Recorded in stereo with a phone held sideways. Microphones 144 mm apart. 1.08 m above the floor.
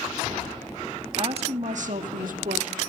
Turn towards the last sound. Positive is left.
turn(degrees=-80)